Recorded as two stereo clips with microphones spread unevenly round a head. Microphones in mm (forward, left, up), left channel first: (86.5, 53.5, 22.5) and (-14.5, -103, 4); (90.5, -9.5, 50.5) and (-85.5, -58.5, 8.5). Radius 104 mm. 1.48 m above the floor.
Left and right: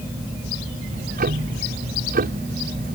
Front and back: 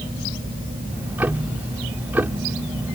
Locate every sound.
0.9 s ticking: 80° right